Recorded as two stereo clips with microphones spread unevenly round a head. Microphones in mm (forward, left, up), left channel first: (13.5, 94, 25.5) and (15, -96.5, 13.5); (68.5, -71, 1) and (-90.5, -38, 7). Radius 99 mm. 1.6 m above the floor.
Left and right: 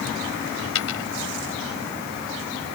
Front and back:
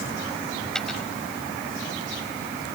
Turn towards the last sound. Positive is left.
turn(degrees=75)